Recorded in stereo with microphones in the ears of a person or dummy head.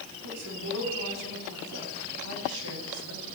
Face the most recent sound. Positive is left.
turn(degrees=-75)  # may be behind; listen again after turning